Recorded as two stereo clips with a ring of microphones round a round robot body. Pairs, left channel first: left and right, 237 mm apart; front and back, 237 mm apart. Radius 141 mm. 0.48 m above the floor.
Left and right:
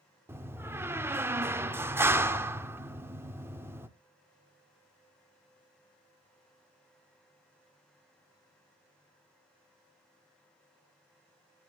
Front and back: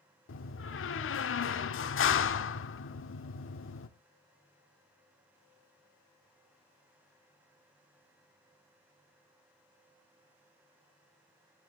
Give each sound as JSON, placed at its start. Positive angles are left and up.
{"t": 0.3, "sound": "a door slam", "azimuth_deg": -10, "distance_m": 1.0}